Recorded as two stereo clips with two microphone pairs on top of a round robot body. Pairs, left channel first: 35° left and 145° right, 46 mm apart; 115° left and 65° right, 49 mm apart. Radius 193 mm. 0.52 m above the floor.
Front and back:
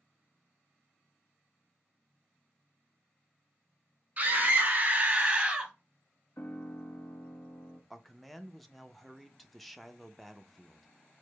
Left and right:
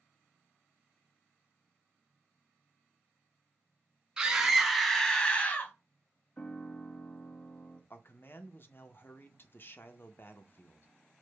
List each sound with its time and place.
4.2 s a scream: 110° right, 1.4 m; by 5.7 s 150° left, 1.3 m
6.4 s a piano: 55° left, 1.0 m
7.9 s a man speaking: 135° left, 0.7 m